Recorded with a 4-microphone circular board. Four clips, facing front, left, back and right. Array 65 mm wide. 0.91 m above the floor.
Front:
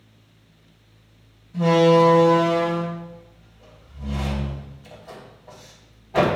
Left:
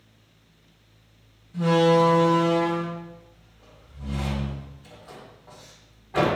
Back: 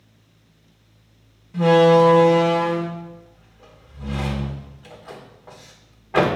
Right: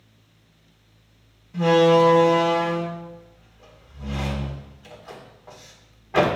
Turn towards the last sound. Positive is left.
turn(degrees=-155)